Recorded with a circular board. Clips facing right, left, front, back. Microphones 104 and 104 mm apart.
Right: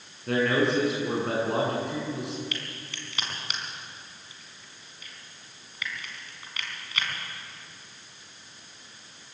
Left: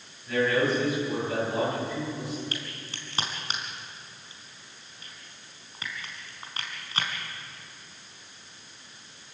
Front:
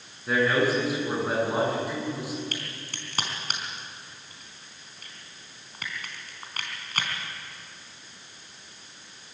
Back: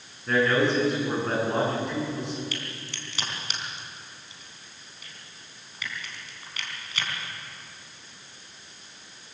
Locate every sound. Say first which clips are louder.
0.3 s a man speaking: right 1 dB, back 1 dB; 85° right, 10 m
2.5 s a crack: even, back 1 dB; 35° left, 4 m